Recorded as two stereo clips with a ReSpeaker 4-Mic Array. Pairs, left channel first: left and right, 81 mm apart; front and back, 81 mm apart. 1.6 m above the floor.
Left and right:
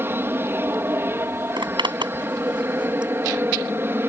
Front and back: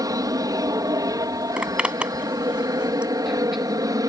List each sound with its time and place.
0.0 s an aircraft: 150° right
1.6 s a zipper: 105° right